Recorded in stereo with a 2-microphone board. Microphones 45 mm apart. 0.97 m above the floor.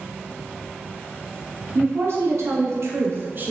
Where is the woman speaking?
65° right (ahead or behind), 1.1 m; by 3.5 s 40° right (ahead or behind), 0.6 m.